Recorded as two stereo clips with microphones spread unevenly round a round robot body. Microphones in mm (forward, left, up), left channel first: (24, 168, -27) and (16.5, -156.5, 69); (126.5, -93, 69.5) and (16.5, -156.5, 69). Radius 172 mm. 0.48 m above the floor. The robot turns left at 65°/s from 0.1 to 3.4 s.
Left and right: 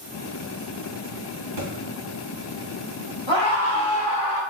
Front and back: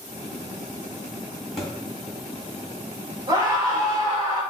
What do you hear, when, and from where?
1.6 s a thud: 55° right, 2.5 m; by 1.7 s 65° right, 2.5 m
3.3 s a scream: straight behind, 1.8 m; by 4.4 s 175° left, 1.8 m